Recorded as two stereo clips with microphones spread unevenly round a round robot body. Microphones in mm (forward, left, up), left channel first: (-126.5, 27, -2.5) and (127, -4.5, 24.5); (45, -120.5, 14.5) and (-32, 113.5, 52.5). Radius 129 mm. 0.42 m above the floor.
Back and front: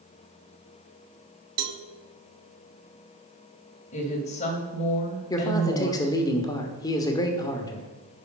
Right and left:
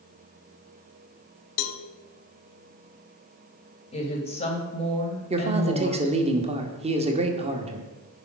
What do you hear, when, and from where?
1.6 s a cowbell: 40° right, 0.7 m
3.9 s a woman speaking: 130° right, 2 m
5.3 s a man speaking: 155° left, 1.1 m